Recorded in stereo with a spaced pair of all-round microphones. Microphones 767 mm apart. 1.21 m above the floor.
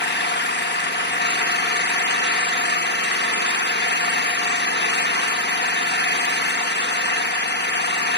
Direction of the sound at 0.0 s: 15° left (ahead or behind).